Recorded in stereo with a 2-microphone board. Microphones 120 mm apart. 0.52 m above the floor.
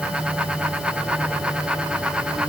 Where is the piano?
I don't hear a piano.